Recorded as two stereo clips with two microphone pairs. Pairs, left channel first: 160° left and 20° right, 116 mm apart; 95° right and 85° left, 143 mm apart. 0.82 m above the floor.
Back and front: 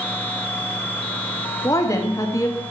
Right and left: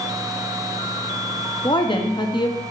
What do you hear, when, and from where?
1.6 s a woman speaking: 145° right, 1.5 m